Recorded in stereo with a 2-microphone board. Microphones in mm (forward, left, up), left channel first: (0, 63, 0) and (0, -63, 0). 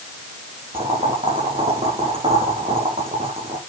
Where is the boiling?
60° right (ahead or behind), 6 m.